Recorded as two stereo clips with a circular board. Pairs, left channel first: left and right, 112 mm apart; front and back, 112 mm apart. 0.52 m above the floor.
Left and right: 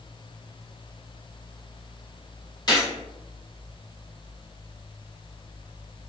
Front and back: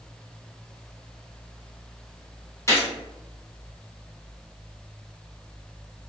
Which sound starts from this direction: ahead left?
A gunshot, at 2.7 s.